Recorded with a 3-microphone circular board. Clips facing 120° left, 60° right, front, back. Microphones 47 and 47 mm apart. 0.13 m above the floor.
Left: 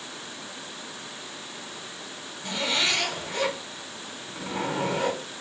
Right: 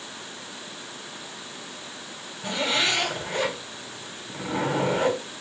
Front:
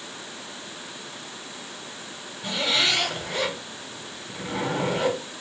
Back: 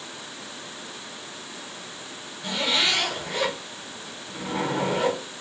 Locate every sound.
2.4 s a zipper: 90° right, 5.5 m